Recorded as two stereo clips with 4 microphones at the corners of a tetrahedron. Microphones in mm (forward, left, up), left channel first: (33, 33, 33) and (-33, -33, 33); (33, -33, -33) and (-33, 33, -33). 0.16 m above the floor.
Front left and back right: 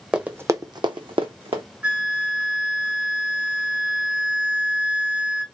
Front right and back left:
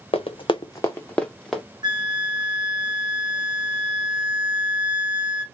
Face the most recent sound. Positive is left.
turn(degrees=150)